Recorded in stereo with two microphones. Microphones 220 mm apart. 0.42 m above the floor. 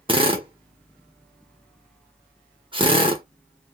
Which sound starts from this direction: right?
A drill, at 0.1 s.